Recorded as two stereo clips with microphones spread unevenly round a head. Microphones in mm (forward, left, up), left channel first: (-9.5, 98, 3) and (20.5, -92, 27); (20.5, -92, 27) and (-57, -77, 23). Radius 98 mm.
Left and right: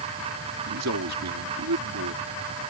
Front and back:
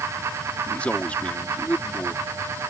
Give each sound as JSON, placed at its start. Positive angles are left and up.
{"t": 0.7, "sound": "a man speaking", "azimuth_deg": -85}